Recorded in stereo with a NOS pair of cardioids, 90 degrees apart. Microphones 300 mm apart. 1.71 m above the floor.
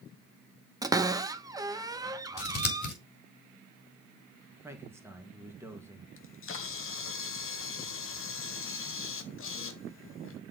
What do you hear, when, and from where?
0.8 s a cupboard door: 10° right, 0.9 m
2.4 s scissors: 35° left, 3.5 m
4.6 s a man speaking: 10° right, 2.5 m
6.2 s a camera shutter: 45° left, 1.4 m